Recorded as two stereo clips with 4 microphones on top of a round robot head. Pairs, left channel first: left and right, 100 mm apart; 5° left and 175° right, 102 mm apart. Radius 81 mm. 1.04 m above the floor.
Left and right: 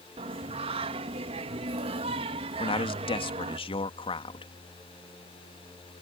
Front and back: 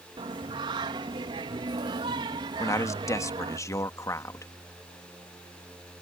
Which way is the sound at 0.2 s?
120° right.